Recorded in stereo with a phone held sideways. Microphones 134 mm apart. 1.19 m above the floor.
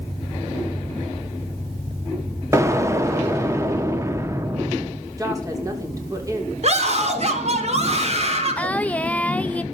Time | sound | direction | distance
2.5 | an explosion | 20° right (ahead or behind) | 1.5 m
5.2 | a woman speaking | 25° right (ahead or behind) | 4 m
6.6 | a scream | 55° right (ahead or behind) | 4.5 m
8.6 | singing | 10° left (ahead or behind) | 0.6 m